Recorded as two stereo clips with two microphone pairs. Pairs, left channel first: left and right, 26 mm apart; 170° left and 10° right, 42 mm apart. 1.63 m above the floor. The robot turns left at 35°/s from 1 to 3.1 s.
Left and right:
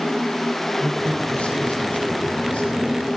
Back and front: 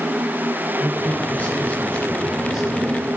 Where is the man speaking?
130° left, 5.5 m; by 3.0 s 60° left, 5.5 m.